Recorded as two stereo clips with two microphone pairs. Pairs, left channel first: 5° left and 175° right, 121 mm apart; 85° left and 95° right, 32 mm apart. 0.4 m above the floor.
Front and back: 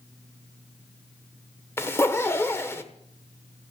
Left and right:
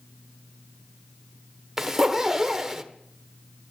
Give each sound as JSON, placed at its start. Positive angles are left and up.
{"t": 1.8, "sound": "a zipper", "azimuth_deg": -35, "distance_m": 1.2}